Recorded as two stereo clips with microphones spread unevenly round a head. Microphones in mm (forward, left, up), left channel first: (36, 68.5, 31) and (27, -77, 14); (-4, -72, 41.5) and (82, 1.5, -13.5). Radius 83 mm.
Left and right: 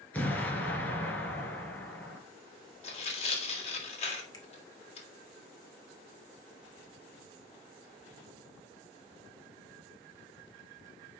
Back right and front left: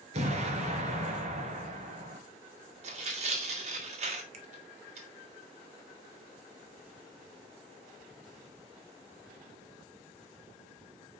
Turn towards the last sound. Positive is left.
turn(degrees=20)